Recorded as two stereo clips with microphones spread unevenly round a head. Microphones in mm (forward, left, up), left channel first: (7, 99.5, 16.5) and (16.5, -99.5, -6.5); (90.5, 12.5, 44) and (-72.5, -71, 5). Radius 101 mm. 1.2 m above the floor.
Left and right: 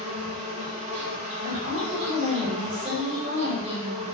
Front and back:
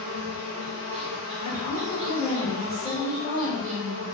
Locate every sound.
0.0 s an insect: 150° right, 0.8 m
1.4 s a woman speaking: 50° right, 1.8 m